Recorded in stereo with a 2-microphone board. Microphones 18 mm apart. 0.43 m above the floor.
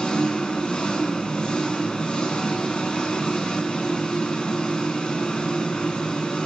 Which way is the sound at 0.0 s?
55° left (ahead or behind).